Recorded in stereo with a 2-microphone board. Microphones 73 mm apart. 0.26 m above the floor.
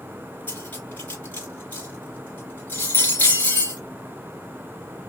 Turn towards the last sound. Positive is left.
turn(degrees=25)  # may be behind; listen again after turning